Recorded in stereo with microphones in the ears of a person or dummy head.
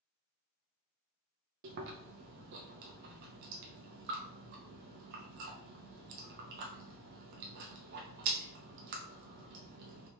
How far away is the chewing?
About 0.7 m.